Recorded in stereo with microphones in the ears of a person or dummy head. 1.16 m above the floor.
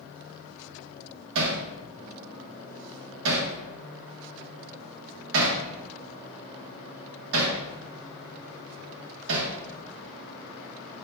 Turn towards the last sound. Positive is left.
turn(degrees=-75)  # may be behind; listen again after turning